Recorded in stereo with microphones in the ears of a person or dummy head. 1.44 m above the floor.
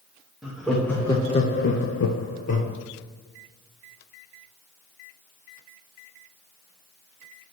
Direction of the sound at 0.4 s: Centre (ahead or behind).